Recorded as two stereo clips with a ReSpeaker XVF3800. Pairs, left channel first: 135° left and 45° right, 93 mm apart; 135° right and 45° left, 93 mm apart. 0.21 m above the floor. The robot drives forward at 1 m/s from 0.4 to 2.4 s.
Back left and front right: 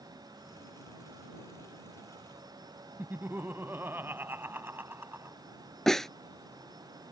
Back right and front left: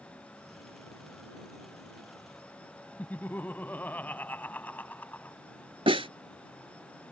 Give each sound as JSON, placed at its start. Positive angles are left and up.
{"t": 3.0, "sound": "laughter", "azimuth_deg": -85}
{"t": 5.9, "sound": "a snare drum", "azimuth_deg": 50}